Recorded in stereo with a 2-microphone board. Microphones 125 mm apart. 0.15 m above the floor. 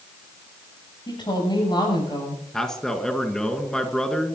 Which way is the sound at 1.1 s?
35° left (ahead or behind).